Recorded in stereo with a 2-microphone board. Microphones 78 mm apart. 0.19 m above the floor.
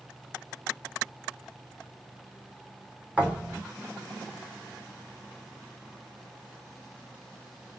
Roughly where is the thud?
Centre.